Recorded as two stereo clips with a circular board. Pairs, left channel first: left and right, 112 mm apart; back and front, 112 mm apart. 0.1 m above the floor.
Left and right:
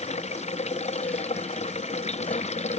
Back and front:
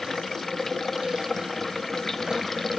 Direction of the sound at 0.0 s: 90° left.